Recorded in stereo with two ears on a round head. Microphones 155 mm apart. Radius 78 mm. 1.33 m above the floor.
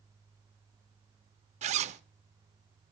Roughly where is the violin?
I don't hear a violin.